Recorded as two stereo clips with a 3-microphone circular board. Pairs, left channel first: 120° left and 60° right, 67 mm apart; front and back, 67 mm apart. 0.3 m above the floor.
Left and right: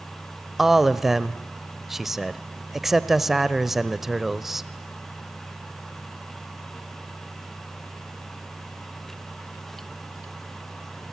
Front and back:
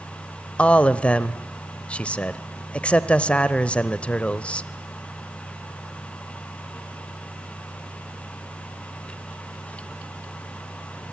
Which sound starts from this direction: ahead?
A man speaking, at 0.6 s.